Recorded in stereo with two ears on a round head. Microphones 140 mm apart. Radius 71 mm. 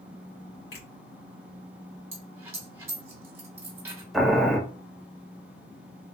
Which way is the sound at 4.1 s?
Centre (ahead or behind).